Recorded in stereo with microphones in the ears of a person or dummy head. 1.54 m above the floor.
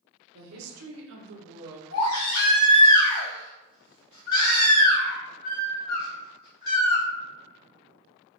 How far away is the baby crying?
About 1.6 m.